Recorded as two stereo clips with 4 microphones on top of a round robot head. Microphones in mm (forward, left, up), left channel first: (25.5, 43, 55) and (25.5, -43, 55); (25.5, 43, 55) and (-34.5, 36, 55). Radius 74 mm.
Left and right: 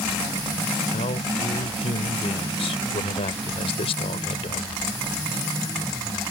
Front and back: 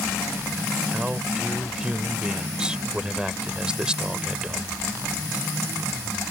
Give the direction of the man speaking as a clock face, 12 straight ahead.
8 o'clock.